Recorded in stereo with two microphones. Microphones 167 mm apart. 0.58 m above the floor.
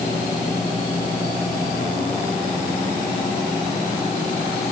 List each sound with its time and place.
Only background noise.